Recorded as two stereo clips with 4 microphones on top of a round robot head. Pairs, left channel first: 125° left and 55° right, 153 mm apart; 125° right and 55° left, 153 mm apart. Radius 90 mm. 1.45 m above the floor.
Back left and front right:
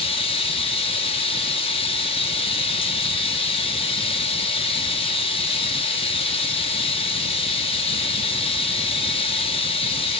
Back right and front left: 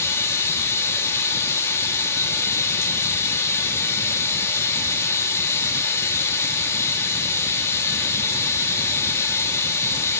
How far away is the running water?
About 1.0 m.